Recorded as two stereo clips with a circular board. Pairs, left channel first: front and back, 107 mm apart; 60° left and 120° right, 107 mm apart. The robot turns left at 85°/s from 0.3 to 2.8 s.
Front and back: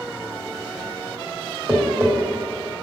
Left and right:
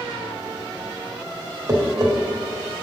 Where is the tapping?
100° right, 1.6 m; by 2.1 s 135° right, 1.6 m.